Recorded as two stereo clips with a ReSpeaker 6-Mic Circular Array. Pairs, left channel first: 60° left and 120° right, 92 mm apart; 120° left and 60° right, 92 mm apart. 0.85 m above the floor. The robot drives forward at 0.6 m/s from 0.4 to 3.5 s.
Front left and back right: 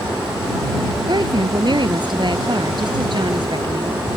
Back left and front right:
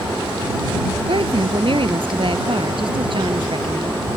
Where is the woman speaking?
85° right.